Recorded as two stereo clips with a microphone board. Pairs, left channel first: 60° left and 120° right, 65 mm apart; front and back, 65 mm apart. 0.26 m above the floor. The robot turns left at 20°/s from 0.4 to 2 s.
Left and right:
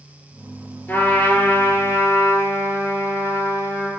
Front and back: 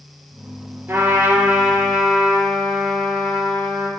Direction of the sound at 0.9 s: 130° left.